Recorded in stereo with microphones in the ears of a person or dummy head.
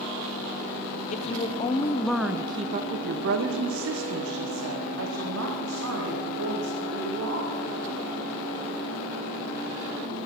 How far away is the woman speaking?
About 0.9 m.